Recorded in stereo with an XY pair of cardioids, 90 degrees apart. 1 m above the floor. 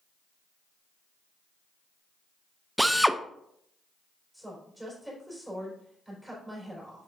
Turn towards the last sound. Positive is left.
turn(degrees=0)